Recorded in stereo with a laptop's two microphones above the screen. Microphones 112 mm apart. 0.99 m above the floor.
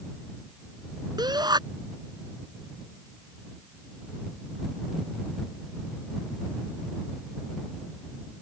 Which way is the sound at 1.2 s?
40° right (ahead or behind).